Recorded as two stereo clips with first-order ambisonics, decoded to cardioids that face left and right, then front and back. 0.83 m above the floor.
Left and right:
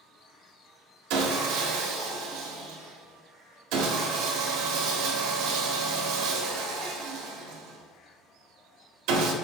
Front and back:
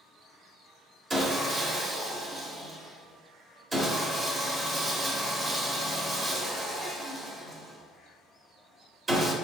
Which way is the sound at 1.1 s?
105° right.